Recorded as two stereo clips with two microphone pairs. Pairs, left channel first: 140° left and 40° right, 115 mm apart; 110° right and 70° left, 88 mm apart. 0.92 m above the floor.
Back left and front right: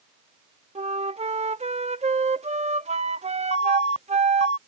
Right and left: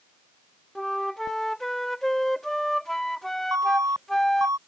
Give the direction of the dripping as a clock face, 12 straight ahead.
I don't hear dripping.